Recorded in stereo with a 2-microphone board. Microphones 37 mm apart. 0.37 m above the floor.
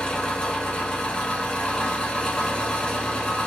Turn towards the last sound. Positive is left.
turn(degrees=30)  # may be behind; listen again after turning